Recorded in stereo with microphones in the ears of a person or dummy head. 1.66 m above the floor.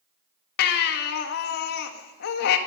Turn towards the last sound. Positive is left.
turn(degrees=60)  # may be behind; listen again after turning